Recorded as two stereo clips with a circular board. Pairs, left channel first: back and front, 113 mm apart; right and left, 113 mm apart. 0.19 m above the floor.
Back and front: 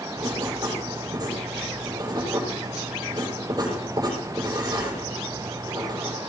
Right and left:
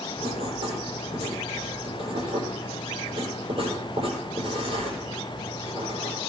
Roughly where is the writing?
Ahead left.